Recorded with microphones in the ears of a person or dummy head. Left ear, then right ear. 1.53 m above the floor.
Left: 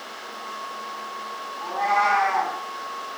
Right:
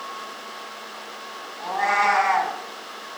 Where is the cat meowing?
85° right, 6.5 m.